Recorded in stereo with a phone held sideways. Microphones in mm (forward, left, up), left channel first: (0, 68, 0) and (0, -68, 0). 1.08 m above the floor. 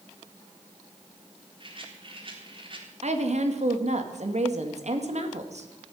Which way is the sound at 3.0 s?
60° right (ahead or behind).